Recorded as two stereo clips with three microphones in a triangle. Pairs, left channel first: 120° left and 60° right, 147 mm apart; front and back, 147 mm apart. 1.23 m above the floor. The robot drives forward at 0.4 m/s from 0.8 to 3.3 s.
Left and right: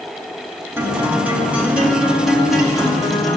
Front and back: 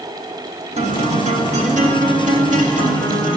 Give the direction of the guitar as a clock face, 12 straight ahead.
4 o'clock.